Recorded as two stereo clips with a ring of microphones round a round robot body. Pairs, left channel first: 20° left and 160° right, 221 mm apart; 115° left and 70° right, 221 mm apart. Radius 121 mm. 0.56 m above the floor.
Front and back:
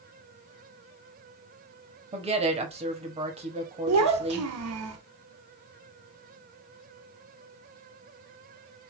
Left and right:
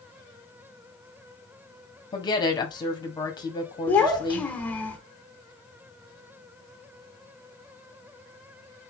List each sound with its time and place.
2.1 s a woman speaking: 170° left, 1.4 m
3.9 s a child speaking: 165° right, 1.0 m